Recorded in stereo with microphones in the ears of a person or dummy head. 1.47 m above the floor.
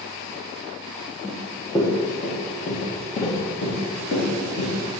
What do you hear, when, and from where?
1.2 s running footsteps: 5° left (ahead or behind), 1.6 m; by 4.7 s 60° left (ahead or behind), 3.5 m